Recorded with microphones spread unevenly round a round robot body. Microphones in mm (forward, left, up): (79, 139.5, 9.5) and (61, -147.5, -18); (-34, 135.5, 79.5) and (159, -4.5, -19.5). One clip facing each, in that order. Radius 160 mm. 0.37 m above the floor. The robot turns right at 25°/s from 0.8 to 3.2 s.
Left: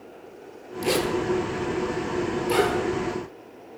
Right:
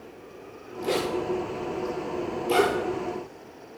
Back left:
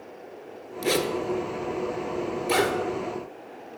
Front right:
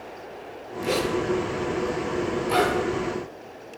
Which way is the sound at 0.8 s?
135° left.